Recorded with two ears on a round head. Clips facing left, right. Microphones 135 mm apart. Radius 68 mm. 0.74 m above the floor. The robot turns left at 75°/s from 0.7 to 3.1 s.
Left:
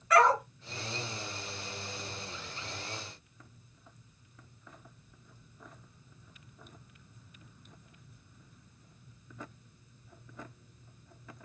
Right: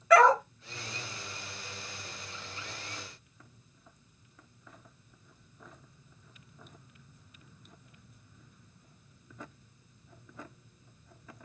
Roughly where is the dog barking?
Right.